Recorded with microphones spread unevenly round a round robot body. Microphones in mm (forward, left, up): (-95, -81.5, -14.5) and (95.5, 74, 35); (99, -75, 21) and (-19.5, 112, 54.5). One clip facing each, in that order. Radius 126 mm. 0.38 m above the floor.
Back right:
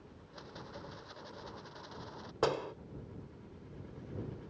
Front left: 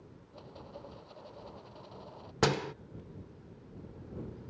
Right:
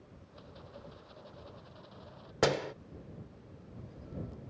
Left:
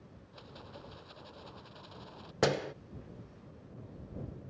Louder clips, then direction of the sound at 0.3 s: Even, left 1 dB; 160° left.